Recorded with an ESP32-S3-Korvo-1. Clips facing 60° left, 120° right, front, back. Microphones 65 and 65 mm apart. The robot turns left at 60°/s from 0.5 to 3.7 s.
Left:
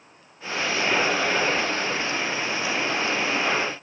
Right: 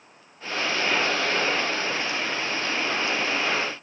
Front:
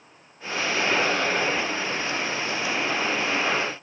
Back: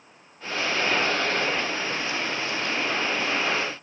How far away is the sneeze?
No sneeze in this recording.